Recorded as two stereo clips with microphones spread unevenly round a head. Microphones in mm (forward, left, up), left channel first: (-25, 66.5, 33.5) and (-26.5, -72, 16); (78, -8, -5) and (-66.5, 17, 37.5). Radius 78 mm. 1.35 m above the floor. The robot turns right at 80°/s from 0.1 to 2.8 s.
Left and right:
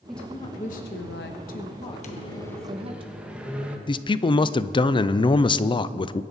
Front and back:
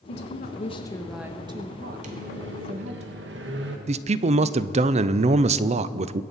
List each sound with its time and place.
0.1 s a woman speaking: straight ahead, 1.1 m; by 3.0 s 145° right, 1.1 m
2.0 s a microwave: 125° left, 1.5 m; by 3.8 s 175° right, 1.5 m
3.9 s a man speaking: 130° left, 0.5 m